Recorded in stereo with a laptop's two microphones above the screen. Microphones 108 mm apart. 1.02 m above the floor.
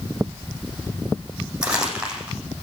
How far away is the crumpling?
About 7 m.